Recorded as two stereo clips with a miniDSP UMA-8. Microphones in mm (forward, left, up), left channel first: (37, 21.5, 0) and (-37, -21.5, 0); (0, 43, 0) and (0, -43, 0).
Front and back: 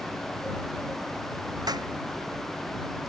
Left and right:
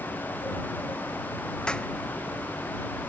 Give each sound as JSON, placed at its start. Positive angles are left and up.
{"t": 1.7, "sound": "a clap", "azimuth_deg": 170}